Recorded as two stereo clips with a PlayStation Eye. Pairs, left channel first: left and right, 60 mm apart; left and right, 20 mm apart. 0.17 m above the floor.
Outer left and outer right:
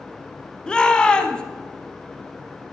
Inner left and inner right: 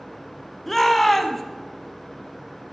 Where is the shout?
15° left (ahead or behind), 1.1 m.